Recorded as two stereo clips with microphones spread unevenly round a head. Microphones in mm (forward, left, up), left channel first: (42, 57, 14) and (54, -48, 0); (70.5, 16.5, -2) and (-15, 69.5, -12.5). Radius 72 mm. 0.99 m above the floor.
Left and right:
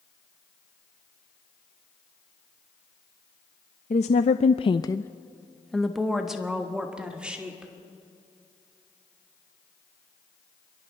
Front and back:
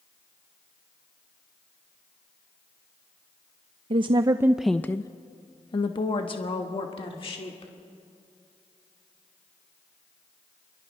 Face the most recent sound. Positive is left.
turn(degrees=-5)